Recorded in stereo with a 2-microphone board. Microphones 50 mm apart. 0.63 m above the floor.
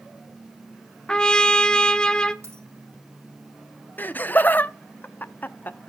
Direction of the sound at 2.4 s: 60° right (ahead or behind).